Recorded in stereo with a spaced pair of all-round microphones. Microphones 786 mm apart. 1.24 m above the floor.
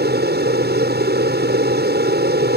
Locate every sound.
0.0 s an aircraft: 15° right (ahead or behind)